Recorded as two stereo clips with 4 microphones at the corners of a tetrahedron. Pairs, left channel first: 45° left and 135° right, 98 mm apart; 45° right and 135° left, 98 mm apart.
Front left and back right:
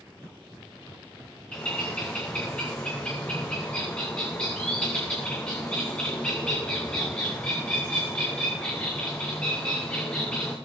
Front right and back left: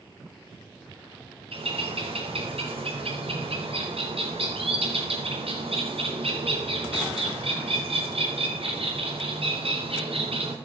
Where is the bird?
125° left, 4.5 m.